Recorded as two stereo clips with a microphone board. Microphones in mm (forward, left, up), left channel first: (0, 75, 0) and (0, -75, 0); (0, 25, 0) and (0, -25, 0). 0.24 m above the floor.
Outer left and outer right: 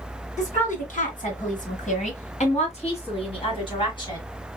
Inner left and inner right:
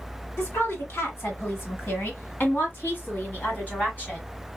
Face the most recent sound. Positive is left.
turn(degrees=30)  # may be behind; listen again after turning